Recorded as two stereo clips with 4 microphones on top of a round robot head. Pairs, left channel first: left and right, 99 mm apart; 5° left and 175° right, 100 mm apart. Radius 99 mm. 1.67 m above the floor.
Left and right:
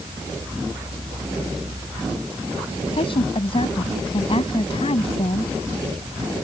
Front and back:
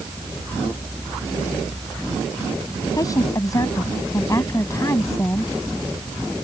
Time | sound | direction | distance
2.9 | a woman speaking | 60° left | ?